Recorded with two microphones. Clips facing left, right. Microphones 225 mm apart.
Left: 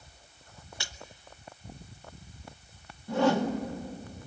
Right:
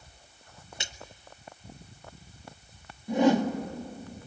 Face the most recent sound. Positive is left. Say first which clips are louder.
# right 3 dB
turn(degrees=-15)  # may be behind; listen again after turning